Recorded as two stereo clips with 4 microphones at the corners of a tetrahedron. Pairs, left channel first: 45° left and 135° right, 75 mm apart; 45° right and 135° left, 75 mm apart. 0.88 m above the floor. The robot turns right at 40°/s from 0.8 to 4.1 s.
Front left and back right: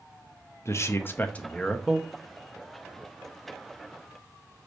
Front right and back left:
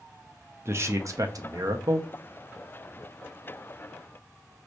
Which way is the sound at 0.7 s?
95° left.